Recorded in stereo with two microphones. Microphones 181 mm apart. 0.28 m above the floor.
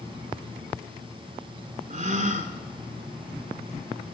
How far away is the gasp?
About 0.6 m.